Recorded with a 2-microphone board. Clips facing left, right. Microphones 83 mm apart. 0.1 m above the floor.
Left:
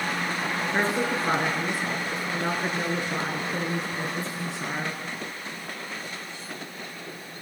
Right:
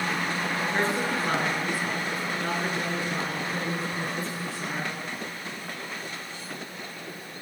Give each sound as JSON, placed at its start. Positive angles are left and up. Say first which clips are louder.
{"t": 0.7, "sound": "a woman speaking", "louder": "left 2 dB", "side_deg": 20, "distance_m": 1.3}